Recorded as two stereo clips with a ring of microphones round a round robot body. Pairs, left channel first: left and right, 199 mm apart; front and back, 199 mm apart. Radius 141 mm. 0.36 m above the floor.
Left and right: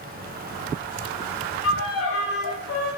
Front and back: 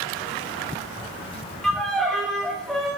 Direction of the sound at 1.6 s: 85° left.